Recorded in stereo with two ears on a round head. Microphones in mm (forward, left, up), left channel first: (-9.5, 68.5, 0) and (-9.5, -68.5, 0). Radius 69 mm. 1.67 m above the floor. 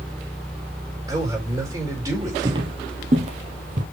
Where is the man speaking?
15° right (ahead or behind), 4.5 m.